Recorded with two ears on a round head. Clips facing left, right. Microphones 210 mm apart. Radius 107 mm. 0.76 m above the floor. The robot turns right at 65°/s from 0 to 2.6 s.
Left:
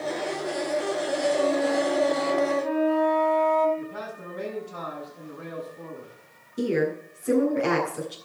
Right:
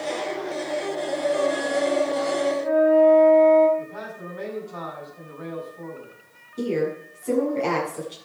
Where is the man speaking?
25° left (ahead or behind), 7.5 m.